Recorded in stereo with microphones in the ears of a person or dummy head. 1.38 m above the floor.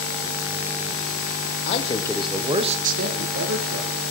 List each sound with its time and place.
1.6 s a man speaking: 35° left (ahead or behind), 1.1 m; by 3.9 s 75° right (ahead or behind), 2 m